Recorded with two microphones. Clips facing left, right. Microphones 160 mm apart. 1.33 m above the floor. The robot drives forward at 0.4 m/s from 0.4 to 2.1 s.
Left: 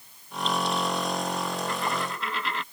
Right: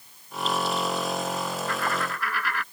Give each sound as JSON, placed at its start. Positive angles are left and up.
{"t": 1.7, "sound": "a dropped coin", "side_deg": 20}